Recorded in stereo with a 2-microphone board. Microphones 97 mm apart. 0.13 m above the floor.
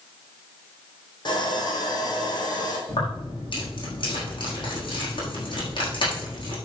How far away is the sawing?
About 4.5 m.